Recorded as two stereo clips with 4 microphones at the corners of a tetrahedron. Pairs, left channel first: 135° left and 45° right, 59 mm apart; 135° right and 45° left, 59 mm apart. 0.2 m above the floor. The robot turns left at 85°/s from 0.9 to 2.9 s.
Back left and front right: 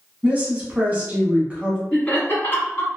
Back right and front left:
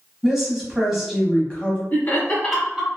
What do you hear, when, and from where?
0.2 s a woman speaking: 30° right, 1.1 m; by 1.8 s 110° right, 1.1 m
1.9 s laughter: 165° right, 1.3 m; by 2.9 s 115° left, 1.3 m